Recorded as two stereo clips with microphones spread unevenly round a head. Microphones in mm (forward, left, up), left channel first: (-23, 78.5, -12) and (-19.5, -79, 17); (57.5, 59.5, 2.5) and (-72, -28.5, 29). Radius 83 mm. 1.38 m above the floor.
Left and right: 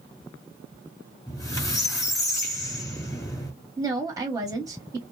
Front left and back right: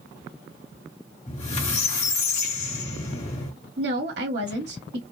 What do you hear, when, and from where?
1.3 s a squeak: 20° left, 1.3 m
3.8 s a woman speaking: 155° right, 1.1 m